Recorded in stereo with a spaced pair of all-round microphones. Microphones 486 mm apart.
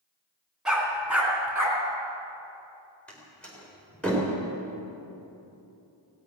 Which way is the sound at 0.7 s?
Centre (ahead or behind).